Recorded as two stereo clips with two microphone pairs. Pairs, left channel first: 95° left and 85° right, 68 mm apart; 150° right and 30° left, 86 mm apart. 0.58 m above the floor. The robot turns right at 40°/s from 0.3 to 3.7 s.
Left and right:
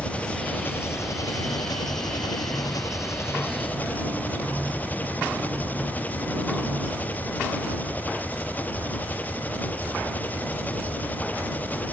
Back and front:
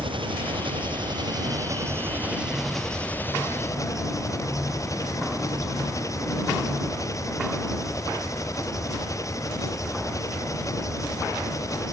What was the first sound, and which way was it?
An engine running, 25° left.